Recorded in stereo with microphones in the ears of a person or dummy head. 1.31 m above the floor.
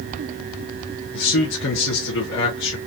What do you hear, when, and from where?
1.1 s a man speaking: 60° left (ahead or behind), 1.0 m